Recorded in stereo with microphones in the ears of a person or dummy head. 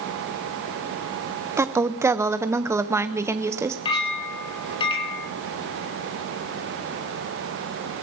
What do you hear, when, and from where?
1.6 s a woman speaking: 10° right (ahead or behind), 0.7 m
3.9 s a clink: 20° left (ahead or behind), 2.5 m